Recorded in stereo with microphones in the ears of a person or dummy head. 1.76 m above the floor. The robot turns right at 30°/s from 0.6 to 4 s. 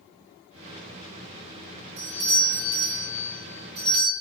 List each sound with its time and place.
2.0 s a doorbell: 110° right, 0.9 m; by 4.1 s 50° right, 0.9 m